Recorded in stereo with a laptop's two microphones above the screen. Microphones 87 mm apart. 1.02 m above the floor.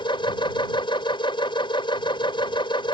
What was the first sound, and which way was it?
A machine running, 70° left (ahead or behind).